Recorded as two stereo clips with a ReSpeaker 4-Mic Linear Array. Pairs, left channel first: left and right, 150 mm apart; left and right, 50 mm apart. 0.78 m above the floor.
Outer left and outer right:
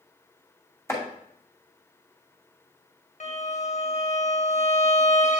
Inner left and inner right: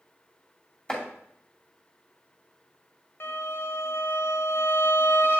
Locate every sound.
0.9 s chopping: 20° left (ahead or behind), 2 m
3.2 s a violin: 55° left (ahead or behind), 0.9 m